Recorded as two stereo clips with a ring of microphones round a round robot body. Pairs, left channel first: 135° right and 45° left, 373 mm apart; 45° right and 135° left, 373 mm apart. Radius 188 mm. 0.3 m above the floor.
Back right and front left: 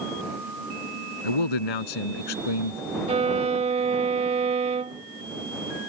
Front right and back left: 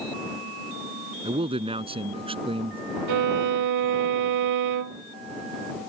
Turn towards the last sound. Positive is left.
turn(degrees=115)